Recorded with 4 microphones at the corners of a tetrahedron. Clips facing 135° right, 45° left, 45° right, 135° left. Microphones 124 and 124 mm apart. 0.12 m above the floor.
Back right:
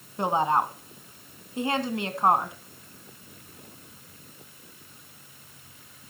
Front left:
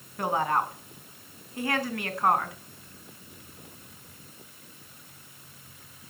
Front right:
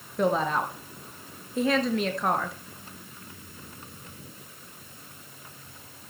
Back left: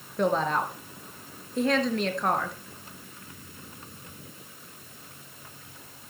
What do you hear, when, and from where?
0.2 s a woman speaking: 130° right, 1.1 m